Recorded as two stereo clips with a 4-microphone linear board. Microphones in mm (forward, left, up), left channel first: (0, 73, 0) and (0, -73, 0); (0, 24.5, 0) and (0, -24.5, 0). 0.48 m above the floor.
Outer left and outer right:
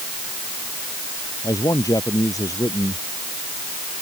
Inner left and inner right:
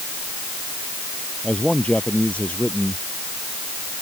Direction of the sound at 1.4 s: 25° left (ahead or behind).